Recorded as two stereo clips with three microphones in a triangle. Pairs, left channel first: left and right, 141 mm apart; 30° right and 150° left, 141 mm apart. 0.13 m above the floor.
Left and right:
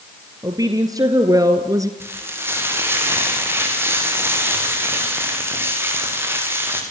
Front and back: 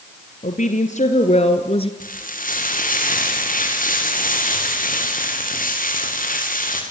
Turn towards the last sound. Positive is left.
turn(degrees=-15)